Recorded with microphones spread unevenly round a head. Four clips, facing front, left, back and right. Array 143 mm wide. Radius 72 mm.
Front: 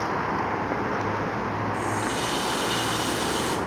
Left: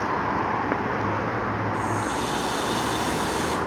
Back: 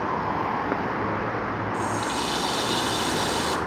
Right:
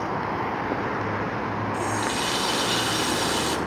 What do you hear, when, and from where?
1.7 s a running tap: 135° right, 1.6 m